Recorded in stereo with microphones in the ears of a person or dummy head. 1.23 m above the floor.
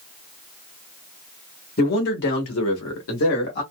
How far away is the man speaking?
About 1.2 m.